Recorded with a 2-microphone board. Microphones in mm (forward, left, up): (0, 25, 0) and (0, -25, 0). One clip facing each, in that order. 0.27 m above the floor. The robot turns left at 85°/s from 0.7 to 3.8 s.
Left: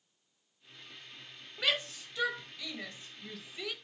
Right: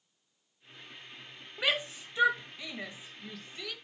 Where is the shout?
15° right (ahead or behind), 1.4 m; by 3.8 s 15° left (ahead or behind), 1.4 m.